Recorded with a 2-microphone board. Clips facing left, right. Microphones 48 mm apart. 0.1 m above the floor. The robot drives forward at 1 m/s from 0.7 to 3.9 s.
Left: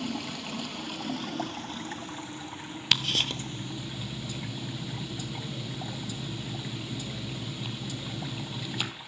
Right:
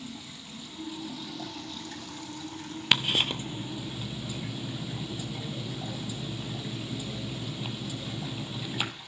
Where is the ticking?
20° right (ahead or behind), 1.2 m; by 8.9 s 10° right (ahead or behind), 2 m.